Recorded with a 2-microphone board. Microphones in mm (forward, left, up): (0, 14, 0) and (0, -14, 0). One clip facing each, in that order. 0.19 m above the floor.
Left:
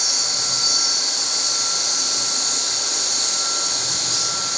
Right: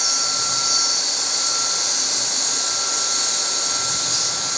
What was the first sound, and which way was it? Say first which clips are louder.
An insect: even; 70° left (ahead or behind).